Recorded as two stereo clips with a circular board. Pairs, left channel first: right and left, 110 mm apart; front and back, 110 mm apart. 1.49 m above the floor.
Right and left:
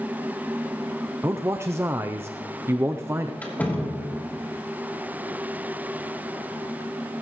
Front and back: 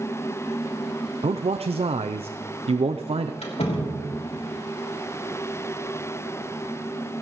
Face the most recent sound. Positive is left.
turn(degrees=-15)